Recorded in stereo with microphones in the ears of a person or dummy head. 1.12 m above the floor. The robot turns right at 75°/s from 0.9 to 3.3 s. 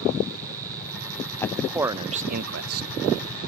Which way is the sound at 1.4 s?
160° left.